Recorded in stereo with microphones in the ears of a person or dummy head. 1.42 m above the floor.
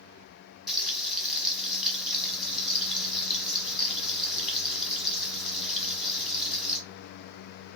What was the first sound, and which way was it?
Frying, 5° right (ahead or behind).